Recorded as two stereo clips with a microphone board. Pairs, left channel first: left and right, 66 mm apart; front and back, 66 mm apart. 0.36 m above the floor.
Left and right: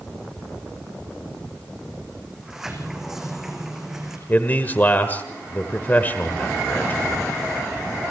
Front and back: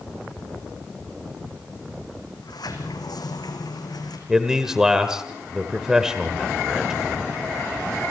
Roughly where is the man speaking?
Left.